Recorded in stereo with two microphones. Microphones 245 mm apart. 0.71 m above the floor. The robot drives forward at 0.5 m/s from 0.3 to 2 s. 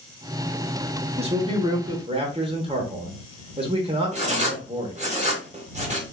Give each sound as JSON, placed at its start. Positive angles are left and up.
{"t": 1.2, "sound": "a man speaking", "side_deg": -25, "distance_m": 0.9}
{"t": 4.1, "sound": "writing", "side_deg": -30, "distance_m": 0.8}